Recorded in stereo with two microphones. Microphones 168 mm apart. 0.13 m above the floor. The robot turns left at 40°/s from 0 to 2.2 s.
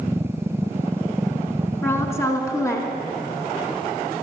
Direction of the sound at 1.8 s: 15° left (ahead or behind).